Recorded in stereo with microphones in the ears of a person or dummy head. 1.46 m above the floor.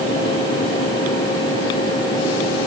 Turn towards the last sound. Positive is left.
No sound to turn to.